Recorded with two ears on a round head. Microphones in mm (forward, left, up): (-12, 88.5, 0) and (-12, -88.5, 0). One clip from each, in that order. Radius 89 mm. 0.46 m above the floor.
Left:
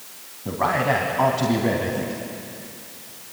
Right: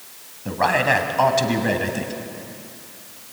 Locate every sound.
0.5 s a man speaking: 65° right (ahead or behind), 2.5 m